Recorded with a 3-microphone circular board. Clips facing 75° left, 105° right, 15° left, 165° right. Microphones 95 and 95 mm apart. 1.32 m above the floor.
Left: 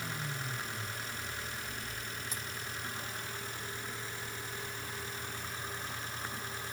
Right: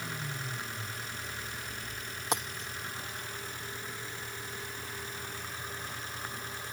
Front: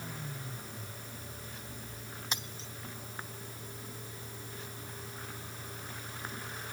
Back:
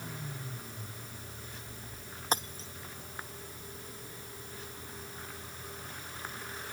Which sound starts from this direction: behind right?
Breaking glass, at 2.3 s.